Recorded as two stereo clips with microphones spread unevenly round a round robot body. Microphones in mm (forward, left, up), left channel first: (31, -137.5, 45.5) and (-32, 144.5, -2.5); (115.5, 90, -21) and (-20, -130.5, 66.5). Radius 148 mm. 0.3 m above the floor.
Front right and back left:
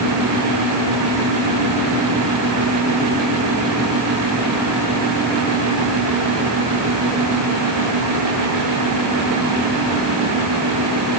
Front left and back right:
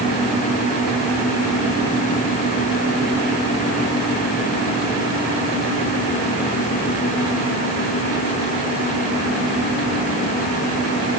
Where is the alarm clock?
No alarm clock in this recording.